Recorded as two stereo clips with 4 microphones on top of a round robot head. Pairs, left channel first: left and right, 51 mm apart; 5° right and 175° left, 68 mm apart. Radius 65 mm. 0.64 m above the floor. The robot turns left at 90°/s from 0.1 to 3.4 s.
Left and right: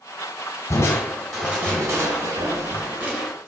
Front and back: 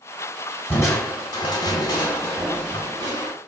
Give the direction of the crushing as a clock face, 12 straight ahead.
10 o'clock.